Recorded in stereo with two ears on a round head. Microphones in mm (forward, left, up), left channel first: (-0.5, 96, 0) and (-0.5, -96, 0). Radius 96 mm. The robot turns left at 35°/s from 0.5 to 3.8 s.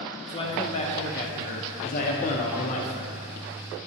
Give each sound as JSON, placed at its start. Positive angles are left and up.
{"t": 0.3, "sound": "a man speaking", "azimuth_deg": 140, "distance_m": 0.8}